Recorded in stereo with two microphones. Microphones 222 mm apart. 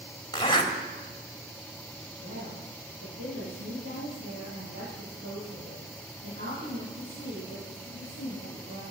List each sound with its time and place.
0.3 s a zipper: 25° left (ahead or behind), 1.8 m
2.2 s a woman speaking: 85° right, 8 m